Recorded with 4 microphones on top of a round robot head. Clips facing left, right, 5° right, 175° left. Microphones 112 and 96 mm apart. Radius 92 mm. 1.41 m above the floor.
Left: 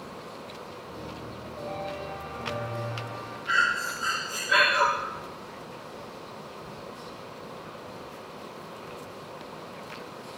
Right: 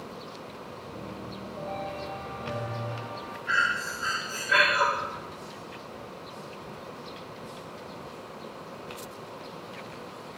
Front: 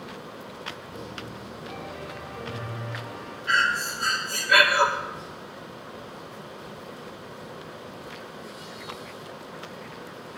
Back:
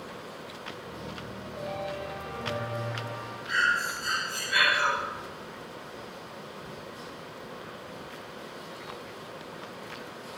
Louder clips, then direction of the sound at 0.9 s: Right 1 dB, front 1 dB; 170° right.